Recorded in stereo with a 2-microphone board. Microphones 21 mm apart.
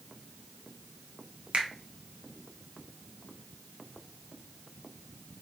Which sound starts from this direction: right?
A finger snap, at 1.5 s.